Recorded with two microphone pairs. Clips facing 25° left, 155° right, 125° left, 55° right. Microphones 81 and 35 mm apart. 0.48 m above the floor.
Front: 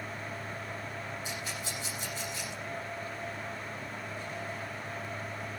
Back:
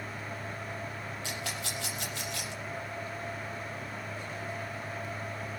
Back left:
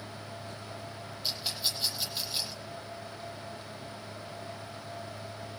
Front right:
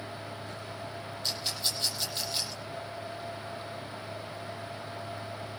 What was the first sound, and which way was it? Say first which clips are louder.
A rattle: back 1 dB, even; 155° right.